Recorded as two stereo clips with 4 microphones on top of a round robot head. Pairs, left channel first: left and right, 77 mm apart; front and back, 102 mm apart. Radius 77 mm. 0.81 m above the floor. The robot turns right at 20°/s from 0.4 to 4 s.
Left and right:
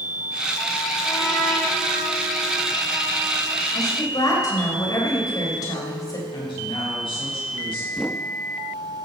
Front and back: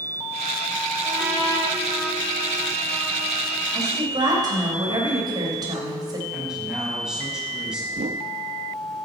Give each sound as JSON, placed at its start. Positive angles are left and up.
{"t": 1.0, "sound": "a trumpet", "azimuth_deg": 140, "distance_m": 5.5}
{"t": 3.7, "sound": "a woman speaking", "azimuth_deg": 125, "distance_m": 3.5}
{"t": 6.3, "sound": "a woman speaking", "azimuth_deg": 95, "distance_m": 5.5}
{"t": 7.9, "sound": "a whoosh", "azimuth_deg": 180, "distance_m": 0.8}